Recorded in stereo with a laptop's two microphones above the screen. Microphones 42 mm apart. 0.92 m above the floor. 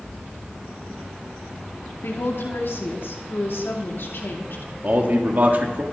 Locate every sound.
2.0 s a woman speaking: 70° left (ahead or behind), 2 m
4.8 s a man speaking: 50° right (ahead or behind), 1.8 m